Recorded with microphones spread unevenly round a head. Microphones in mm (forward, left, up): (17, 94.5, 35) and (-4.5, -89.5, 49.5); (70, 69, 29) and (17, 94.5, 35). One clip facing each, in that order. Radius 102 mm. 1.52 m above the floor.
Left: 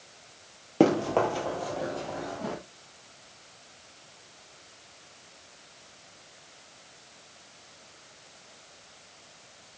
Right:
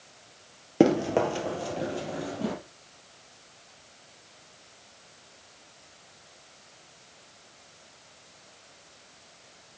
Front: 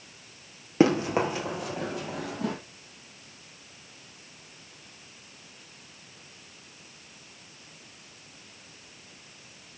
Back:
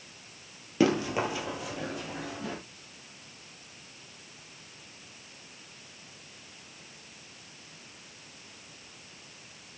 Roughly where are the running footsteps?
Ahead right.